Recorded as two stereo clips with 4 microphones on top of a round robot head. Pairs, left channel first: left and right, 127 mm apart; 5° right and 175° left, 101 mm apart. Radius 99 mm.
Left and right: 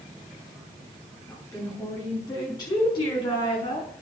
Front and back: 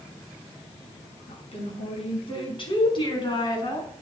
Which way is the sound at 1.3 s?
15° left.